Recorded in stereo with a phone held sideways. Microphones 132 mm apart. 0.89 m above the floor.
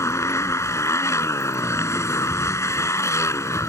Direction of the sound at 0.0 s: 20° left (ahead or behind).